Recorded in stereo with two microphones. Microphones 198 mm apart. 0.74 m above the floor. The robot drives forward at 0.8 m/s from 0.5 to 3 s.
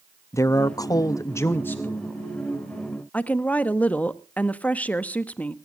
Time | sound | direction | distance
0.3 | a man speaking | 15° left (ahead or behind) | 0.6 m
3.1 | a woman speaking | 5° left (ahead or behind) | 0.9 m